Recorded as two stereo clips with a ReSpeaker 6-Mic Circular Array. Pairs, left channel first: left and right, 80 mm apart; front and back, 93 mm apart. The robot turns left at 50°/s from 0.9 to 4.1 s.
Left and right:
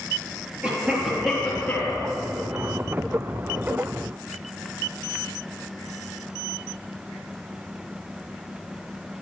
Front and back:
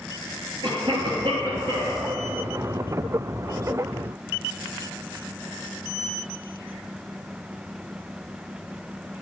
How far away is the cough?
About 3.5 m.